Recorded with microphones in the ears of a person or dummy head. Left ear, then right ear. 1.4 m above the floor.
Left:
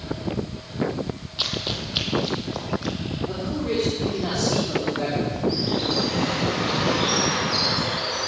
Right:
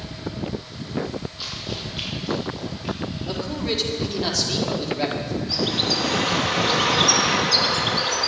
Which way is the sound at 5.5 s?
45° right (ahead or behind).